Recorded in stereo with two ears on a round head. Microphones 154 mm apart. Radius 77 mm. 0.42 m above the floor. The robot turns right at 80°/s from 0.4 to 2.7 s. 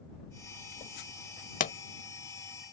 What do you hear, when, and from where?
1.6 s a pop: 50° left (ahead or behind); by 1.8 s 40° left (ahead or behind)